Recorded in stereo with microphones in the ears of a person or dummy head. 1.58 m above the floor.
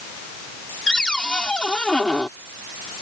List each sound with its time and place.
0.9 s a cupboard door: 5° left (ahead or behind)